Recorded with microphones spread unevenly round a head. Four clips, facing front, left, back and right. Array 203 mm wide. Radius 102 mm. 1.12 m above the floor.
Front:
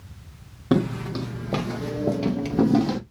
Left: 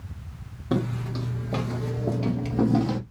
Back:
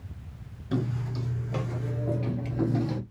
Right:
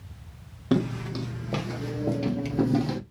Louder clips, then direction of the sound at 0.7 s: Right 2 dB, front 8 dB; 15° right.